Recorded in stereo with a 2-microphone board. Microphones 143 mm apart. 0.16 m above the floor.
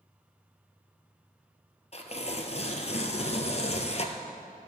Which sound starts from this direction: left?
Tearing paper, at 1.9 s.